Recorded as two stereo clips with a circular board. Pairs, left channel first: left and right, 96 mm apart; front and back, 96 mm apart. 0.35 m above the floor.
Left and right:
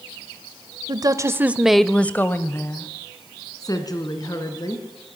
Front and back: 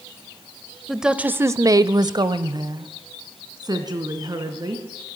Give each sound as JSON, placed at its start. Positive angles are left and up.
{"t": 0.9, "sound": "a woman speaking", "azimuth_deg": -90, "distance_m": 1.2}